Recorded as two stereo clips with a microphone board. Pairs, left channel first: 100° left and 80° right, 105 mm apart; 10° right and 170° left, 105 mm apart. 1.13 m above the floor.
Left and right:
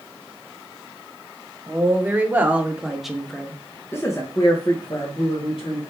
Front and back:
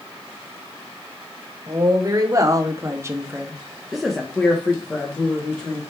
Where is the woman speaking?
140° right, 1.2 m; by 5.8 s 55° left, 1.4 m.